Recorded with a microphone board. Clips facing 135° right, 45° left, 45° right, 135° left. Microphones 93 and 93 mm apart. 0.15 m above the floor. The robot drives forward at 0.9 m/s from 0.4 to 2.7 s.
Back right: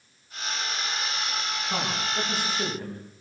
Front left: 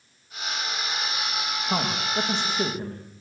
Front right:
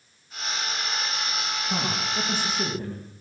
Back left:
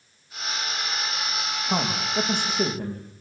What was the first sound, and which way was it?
A man speaking, 105° left.